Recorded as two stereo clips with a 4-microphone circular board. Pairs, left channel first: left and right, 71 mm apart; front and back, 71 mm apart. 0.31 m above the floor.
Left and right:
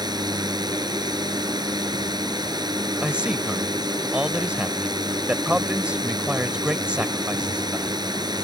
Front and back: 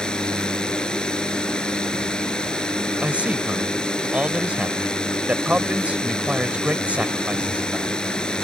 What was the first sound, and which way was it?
A drone, 80° right.